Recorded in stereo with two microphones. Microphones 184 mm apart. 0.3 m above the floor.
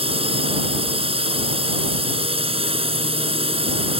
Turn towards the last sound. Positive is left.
turn(degrees=-30)  # may be behind; listen again after turning